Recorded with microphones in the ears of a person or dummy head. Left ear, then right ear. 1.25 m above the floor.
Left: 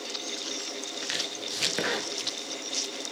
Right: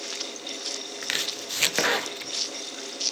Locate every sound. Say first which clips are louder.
1.0 s chopping: right 4 dB; 30° right (ahead or behind)